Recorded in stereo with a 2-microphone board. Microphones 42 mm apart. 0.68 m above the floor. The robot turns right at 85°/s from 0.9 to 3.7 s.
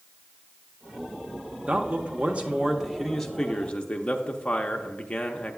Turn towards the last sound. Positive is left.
turn(degrees=55)